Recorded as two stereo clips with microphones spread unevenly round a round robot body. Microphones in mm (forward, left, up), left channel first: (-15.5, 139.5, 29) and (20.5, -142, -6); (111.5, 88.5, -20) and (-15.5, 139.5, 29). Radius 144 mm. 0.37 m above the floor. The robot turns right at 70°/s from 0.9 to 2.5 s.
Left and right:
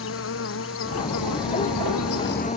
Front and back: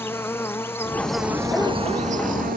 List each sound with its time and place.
0.0 s an insect: 50° left; by 2.6 s 165° left